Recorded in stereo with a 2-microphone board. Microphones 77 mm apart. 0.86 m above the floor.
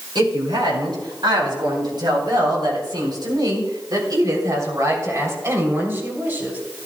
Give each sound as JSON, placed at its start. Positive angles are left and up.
{"t": 0.1, "sound": "a woman speaking", "side_deg": -85, "distance_m": 5.5}